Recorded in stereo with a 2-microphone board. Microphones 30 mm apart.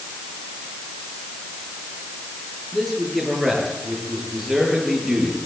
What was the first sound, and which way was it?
A man speaking, 5° left (ahead or behind).